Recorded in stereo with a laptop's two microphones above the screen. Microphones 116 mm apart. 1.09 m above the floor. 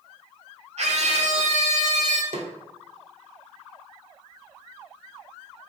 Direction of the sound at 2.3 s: 65° right (ahead or behind).